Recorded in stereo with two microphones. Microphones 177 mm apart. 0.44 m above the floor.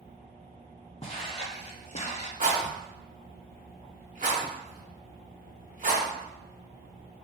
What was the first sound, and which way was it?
Footsteps, 35° left (ahead or behind).